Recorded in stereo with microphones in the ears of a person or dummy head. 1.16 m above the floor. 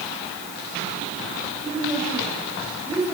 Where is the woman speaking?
15° right (ahead or behind), 5 m.